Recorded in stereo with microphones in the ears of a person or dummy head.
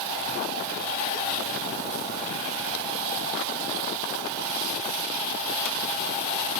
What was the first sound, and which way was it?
Only background noise.